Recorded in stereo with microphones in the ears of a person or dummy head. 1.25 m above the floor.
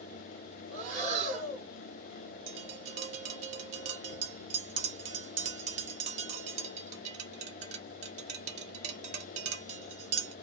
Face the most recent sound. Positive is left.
turn(degrees=-30)  # may be behind; listen again after turning